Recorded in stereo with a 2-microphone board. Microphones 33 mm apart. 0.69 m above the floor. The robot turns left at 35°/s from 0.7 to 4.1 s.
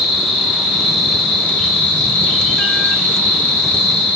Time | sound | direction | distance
0.0 | an insect | 170° left | 0.7 m